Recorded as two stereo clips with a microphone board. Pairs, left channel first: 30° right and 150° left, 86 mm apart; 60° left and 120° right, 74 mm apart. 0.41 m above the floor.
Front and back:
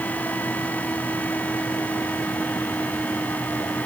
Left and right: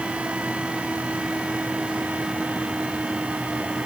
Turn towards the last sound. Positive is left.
No sound to turn to.